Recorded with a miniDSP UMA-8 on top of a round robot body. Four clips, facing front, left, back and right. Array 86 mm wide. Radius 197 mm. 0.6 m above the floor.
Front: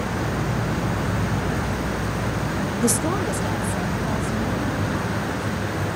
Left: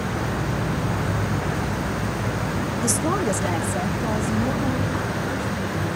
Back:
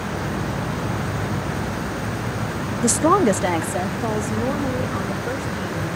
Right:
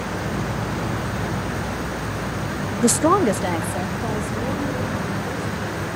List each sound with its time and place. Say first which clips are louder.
2.8 s a woman speaking: right 8 dB, back 8 dB; 90° right, 0.6 m; by 6.0 s straight behind, 4.5 m